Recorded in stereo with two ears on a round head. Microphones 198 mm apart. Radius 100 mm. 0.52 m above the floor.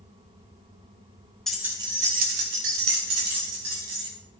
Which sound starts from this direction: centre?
Keys jangling, at 1.5 s.